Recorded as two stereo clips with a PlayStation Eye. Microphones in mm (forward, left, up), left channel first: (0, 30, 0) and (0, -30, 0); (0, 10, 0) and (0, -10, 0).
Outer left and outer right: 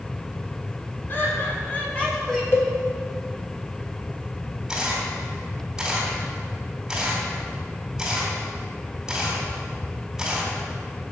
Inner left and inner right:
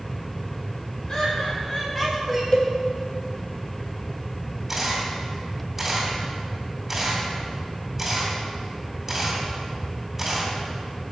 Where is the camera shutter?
10° right (ahead or behind), 3.5 m.